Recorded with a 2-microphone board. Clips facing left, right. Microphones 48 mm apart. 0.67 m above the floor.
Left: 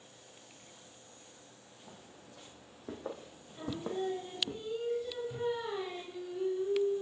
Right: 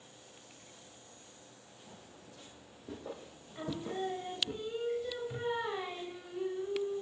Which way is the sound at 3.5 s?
40° right (ahead or behind).